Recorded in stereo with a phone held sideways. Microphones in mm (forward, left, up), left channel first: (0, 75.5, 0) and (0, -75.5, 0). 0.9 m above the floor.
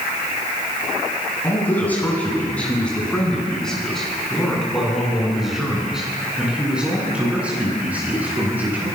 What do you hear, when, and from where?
1.4 s a man speaking: 10° left (ahead or behind), 9 m; by 8.9 s 10° right (ahead or behind), 11 m